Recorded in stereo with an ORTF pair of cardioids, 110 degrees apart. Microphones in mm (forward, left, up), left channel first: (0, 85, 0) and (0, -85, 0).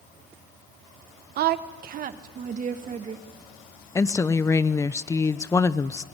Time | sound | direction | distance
1.4 | a woman speaking | 70° right | 1.1 m
4.0 | a woman speaking | 15° left | 0.8 m